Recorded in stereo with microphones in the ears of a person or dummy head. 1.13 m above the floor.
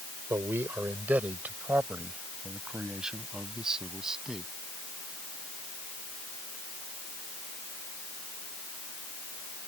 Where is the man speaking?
10° right (ahead or behind); by 4.5 s 5° right (ahead or behind).